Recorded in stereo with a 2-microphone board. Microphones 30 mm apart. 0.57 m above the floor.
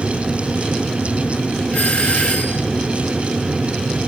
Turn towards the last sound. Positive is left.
turn(degrees=60)  # may be behind; listen again after turning